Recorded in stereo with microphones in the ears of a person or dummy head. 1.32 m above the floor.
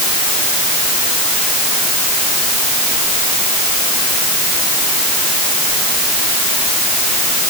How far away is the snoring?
No snoring in this recording.